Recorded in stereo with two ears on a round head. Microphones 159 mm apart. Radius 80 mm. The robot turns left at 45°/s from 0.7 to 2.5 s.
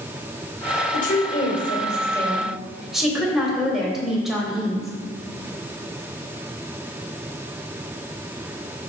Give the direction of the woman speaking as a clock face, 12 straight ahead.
10 o'clock.